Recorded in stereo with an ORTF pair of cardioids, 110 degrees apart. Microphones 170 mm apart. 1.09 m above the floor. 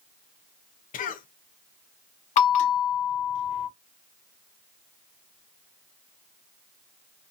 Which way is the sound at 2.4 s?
50° left.